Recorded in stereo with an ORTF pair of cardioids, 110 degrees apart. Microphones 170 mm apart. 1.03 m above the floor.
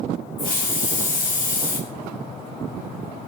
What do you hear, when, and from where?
0.4 s a hiss: 55° left, 2.5 m